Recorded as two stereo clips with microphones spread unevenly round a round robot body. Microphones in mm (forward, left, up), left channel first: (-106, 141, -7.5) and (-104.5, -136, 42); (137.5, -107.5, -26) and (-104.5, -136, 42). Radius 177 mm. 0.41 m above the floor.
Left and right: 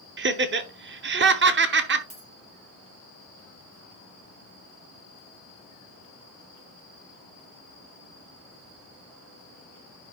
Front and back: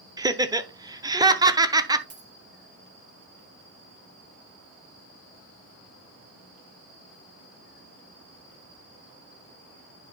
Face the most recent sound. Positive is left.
turn(degrees=-130)